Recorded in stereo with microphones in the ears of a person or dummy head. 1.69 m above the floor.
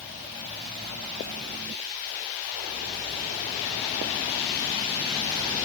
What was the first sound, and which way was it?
Only background noise.